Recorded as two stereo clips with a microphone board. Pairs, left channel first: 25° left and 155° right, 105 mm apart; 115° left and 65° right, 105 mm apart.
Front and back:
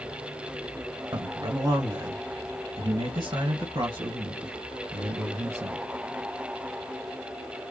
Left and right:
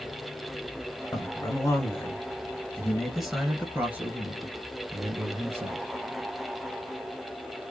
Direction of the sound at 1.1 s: 155° left.